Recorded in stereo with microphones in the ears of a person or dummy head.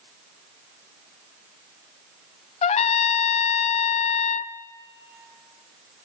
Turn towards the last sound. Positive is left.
turn(degrees=30)  # may be behind; listen again after turning